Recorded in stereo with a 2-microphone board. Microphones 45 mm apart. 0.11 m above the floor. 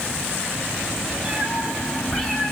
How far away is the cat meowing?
About 3.5 m.